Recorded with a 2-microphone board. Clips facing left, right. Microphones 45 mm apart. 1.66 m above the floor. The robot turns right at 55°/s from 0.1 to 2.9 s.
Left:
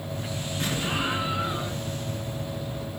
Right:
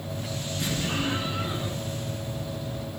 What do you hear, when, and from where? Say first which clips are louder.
0.6 s an explosion: left 1 dB; 140° left, 7.5 m; by 1.8 s 155° right, 7.5 m